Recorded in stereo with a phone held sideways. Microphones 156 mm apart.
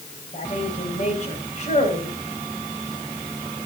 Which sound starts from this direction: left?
A woman speaking, at 0.3 s.